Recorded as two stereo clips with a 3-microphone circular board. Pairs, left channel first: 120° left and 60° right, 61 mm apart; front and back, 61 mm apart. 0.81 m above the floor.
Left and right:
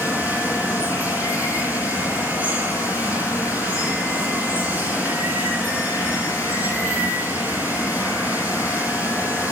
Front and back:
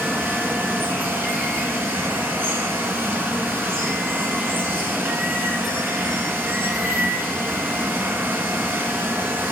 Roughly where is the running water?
Behind right.